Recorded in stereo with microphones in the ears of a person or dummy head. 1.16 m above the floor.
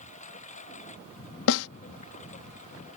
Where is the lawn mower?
40° left (ahead or behind).